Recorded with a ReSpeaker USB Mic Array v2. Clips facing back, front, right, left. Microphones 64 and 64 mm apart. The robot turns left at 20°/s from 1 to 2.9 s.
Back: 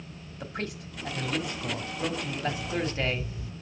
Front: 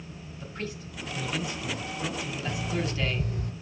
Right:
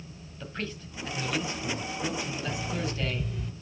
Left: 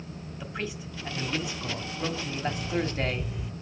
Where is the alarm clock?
10° left, 0.7 m; by 3.5 s straight ahead, 0.7 m.